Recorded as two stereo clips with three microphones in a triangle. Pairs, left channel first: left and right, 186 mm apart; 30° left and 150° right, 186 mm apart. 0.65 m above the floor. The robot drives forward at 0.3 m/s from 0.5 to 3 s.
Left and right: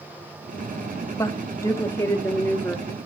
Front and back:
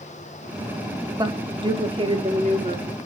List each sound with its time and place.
1.2 s a woman speaking: 155° left, 0.9 m; by 2.9 s 165° left, 1.2 m